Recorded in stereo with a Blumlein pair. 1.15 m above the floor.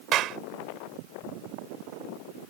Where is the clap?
35° right.